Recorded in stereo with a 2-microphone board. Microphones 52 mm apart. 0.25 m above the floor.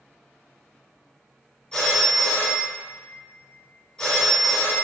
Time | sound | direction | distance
1.7 | a phone ringing | 20° left (ahead or behind) | 1.1 m